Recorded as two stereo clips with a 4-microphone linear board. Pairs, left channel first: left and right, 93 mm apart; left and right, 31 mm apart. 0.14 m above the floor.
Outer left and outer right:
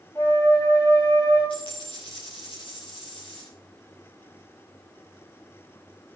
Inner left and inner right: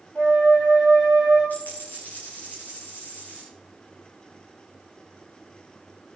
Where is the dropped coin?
80° left, 9 m.